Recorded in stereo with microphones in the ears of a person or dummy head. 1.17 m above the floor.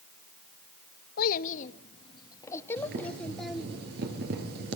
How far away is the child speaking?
About 1.1 m.